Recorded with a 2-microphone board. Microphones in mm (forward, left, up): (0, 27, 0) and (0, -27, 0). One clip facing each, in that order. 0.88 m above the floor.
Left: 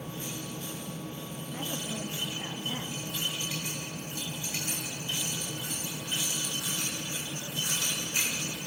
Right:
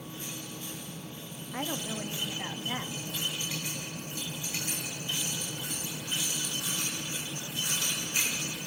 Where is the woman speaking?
50° right (ahead or behind), 1.7 m.